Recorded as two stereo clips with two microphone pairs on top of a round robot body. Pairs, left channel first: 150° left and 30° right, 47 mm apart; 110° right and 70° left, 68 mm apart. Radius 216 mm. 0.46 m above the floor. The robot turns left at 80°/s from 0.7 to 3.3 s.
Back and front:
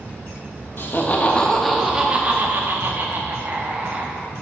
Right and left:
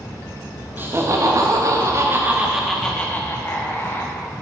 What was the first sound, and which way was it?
Laughter, 130° left.